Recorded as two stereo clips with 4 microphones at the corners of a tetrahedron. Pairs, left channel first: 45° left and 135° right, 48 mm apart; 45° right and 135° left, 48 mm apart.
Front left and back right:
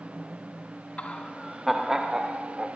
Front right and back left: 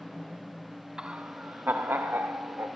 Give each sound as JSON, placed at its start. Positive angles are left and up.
{"t": 1.0, "sound": "laughter", "azimuth_deg": 70, "distance_m": 0.7}